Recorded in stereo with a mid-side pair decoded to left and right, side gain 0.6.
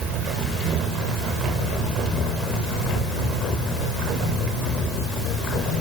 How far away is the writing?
No writing in this recording.